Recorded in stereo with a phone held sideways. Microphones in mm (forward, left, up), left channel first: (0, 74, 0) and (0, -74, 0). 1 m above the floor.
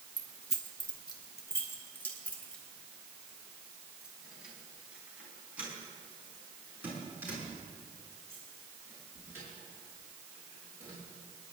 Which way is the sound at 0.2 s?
55° left (ahead or behind).